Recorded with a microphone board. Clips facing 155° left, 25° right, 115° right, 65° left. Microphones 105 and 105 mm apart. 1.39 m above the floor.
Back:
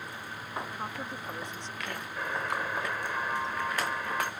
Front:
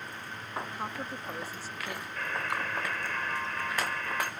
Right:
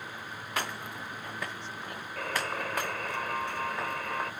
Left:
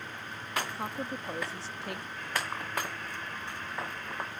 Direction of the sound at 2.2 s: 135° right.